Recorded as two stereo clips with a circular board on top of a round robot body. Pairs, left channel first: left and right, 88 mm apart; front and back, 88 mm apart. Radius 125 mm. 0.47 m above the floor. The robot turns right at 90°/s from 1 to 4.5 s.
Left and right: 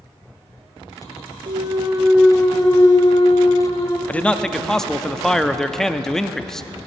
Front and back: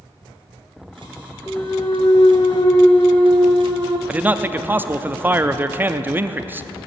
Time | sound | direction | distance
1.5 | a clunk | 70° right | 1.3 m
4.1 | a man speaking | 130° left | 0.7 m